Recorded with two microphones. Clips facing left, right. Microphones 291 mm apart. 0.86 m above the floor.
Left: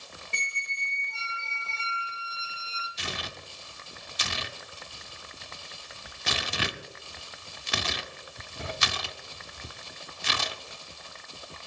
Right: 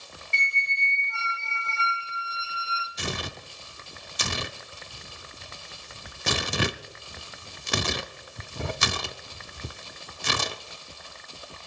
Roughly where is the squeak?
Left.